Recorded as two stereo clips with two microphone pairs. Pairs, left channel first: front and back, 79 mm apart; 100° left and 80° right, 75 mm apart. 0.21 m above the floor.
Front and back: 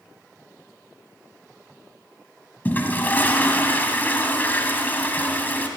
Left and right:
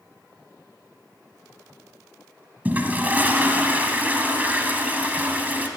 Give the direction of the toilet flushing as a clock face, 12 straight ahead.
1 o'clock.